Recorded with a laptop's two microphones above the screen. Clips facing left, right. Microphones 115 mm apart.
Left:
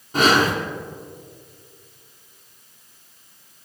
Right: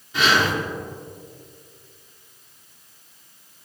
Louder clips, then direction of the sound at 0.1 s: Left 3 dB; 45° left (ahead or behind).